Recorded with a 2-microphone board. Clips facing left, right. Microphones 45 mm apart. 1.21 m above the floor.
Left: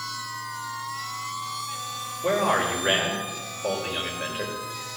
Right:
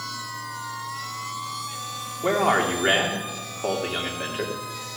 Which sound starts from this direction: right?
A man speaking, at 2.2 s.